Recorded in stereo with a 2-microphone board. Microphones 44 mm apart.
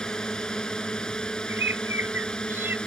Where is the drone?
15° left (ahead or behind); by 2.9 s 20° left (ahead or behind).